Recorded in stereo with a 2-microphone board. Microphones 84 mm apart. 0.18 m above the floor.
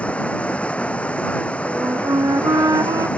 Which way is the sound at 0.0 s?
15° left (ahead or behind).